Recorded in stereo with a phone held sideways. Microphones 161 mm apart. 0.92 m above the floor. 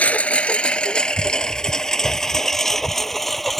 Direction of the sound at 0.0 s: 10° left (ahead or behind).